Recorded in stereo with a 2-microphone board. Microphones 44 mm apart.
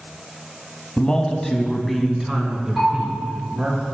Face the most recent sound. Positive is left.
turn(degrees=5)  # may be behind; listen again after turning